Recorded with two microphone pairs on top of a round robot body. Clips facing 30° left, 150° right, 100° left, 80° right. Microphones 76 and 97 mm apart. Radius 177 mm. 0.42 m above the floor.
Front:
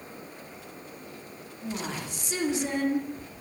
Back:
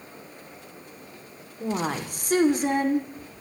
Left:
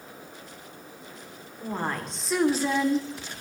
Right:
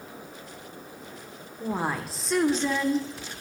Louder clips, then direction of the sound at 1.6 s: Back 7 dB, right 2 dB; 155° right.